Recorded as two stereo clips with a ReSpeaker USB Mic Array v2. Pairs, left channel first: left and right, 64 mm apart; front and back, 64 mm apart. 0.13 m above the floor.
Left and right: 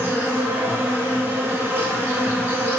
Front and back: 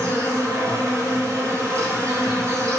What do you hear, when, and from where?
0.0 s an insect: 145° right, 1.0 m